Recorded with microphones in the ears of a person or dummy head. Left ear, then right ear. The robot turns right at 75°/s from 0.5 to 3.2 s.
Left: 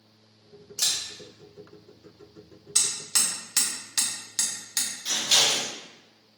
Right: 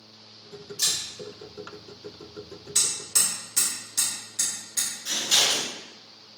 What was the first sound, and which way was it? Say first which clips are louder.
A camera shutter: even; 45° left (ahead or behind).